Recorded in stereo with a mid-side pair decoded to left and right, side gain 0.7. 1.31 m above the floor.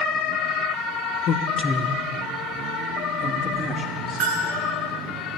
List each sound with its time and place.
1.3 s a man speaking: 50° left, 0.6 m; by 4.3 s 40° right, 2.5 m
4.2 s a bell: 55° right, 3.5 m